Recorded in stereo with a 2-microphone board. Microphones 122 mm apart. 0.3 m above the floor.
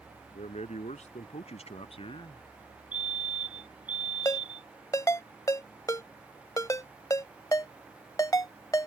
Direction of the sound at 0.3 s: 75° left (ahead or behind).